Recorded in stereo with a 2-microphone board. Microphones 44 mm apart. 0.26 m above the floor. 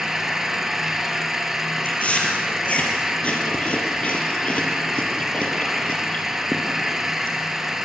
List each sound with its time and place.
0.0 s an engine running: 5° right (ahead or behind), 2.5 m
1.9 s chewing: 30° left (ahead or behind), 5 m